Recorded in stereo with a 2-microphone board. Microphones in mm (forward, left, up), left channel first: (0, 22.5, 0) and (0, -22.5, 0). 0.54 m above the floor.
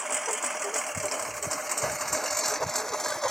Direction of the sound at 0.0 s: 5° right (ahead or behind).